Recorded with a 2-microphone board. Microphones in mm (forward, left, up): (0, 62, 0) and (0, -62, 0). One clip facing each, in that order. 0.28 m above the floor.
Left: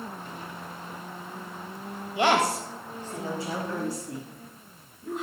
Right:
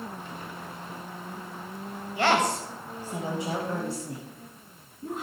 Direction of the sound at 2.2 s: 20° left (ahead or behind).